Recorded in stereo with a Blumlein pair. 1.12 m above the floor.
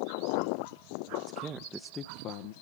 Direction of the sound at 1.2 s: 30° right.